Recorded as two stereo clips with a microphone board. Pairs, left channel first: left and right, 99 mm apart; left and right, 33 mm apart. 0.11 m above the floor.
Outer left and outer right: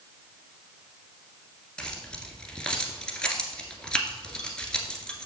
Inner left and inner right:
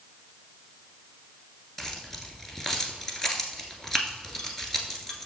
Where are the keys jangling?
10° left (ahead or behind), 1.4 m.